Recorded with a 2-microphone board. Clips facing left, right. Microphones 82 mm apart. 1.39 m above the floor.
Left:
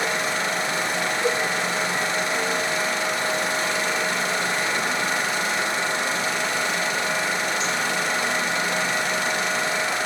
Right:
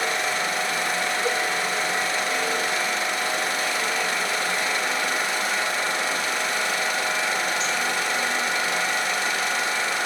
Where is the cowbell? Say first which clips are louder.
Left 3 dB; 50° left (ahead or behind), 1.3 m.